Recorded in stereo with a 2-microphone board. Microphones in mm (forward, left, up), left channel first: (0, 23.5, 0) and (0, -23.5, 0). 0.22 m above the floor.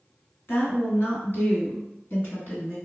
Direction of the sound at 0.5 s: 55° left (ahead or behind).